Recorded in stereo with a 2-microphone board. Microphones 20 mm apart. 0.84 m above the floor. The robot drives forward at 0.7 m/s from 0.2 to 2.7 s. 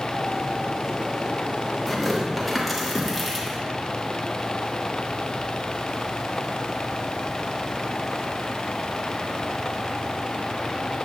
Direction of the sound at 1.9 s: 5° right (ahead or behind).